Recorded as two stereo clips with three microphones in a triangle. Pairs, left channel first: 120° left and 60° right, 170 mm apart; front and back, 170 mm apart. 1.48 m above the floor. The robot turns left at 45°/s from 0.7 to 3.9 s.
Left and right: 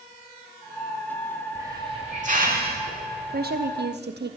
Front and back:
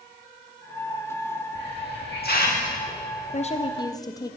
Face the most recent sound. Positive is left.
turn(degrees=-65)